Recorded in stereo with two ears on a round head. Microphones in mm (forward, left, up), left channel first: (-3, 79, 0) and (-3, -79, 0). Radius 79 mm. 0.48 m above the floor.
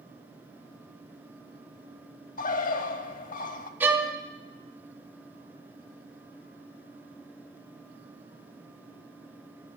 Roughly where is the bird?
Left.